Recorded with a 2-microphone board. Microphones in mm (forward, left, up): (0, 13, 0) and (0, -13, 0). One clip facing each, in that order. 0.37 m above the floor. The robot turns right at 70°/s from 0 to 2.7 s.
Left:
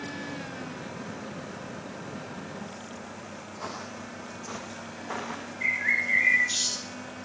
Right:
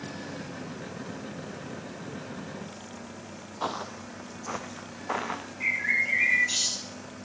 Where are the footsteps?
70° right (ahead or behind), 0.8 m; by 5.4 s 65° right (ahead or behind), 2.5 m.